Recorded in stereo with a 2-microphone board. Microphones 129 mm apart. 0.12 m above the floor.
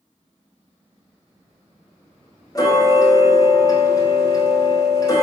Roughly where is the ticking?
Left.